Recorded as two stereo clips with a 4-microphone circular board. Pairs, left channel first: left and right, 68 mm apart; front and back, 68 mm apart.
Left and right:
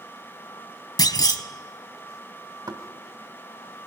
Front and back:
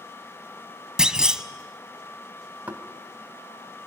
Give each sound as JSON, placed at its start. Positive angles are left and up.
{"t": 1.0, "sound": "a clunk", "azimuth_deg": 100, "distance_m": 1.2}
{"t": 2.7, "sound": "knocking", "azimuth_deg": -110, "distance_m": 2.5}